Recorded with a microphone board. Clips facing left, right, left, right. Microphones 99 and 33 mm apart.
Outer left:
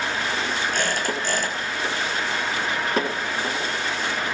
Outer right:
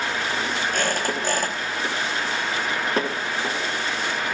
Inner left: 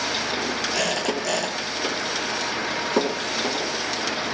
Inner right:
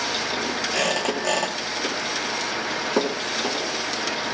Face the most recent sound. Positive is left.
turn(degrees=-45)  # may be behind; listen again after turning